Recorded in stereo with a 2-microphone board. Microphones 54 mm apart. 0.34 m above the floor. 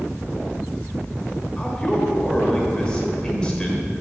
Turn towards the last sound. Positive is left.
turn(degrees=15)  # may be behind; listen again after turning